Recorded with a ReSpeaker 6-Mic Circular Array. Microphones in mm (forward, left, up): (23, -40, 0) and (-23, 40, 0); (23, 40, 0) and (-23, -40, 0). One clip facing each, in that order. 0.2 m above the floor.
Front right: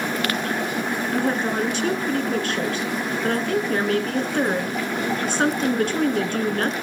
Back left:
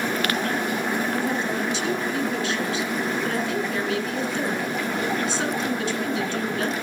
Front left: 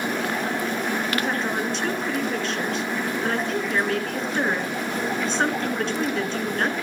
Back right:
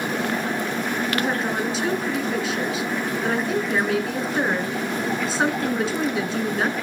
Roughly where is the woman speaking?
Ahead right.